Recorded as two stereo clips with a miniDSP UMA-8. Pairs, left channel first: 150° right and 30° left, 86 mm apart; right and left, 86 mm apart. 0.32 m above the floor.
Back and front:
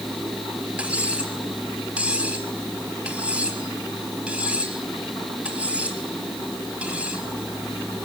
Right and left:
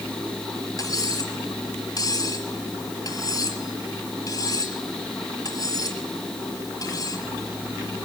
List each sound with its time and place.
0.8 s cutlery clinking: 45° right, 4 m